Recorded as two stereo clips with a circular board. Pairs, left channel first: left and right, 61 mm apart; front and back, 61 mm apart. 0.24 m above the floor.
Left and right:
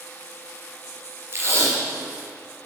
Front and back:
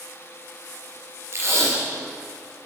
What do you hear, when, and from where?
1.3 s tape being pulled: 135° right, 4 m